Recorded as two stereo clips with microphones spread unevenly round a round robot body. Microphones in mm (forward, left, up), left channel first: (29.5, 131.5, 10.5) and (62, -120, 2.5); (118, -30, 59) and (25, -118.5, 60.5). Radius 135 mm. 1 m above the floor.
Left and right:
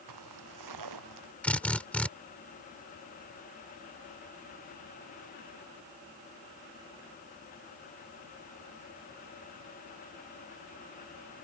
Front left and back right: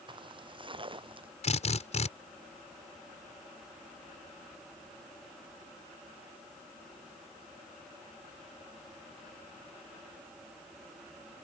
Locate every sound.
0.1 s footsteps: 85° right; by 1.3 s 90° right
1.4 s a drill: 15° left